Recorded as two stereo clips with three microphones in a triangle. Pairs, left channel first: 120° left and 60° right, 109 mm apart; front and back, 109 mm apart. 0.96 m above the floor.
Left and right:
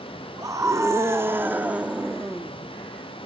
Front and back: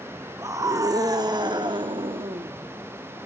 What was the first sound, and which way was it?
A scream, 120° right.